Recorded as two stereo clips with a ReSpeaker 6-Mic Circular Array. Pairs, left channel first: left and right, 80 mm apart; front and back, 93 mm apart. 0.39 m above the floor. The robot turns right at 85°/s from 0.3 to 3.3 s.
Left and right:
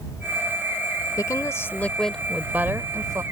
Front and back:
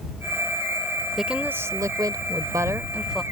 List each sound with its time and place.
1.2 s a woman speaking: 95° left; by 3.2 s 90° right